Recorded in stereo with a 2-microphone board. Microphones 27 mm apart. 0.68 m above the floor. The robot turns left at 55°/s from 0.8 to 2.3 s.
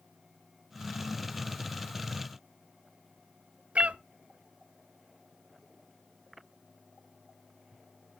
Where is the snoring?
No snoring in this recording.